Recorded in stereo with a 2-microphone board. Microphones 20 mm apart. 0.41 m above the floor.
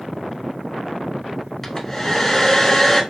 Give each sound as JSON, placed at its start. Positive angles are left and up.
{"t": 1.6, "sound": "a hair dryer", "side_deg": 15, "distance_m": 0.9}